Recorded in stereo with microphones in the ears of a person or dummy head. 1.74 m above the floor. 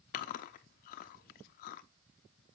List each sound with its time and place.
0.1 s chewing: 50° left (ahead or behind), 0.6 m